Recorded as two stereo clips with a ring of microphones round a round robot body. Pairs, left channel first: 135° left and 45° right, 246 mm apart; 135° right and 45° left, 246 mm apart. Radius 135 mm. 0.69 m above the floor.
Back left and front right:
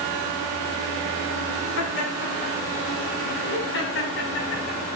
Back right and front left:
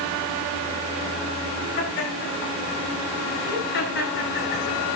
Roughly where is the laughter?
Behind.